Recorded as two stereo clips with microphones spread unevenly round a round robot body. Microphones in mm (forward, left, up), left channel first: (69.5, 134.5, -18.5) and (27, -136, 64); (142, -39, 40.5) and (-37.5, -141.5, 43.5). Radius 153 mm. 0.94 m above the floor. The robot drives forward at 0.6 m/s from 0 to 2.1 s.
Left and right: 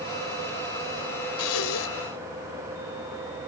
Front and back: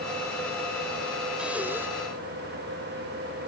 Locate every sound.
1.4 s breathing: 125° left